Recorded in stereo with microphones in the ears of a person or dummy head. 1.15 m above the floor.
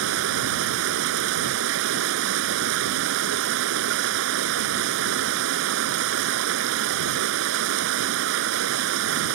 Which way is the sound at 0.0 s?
75° right (ahead or behind).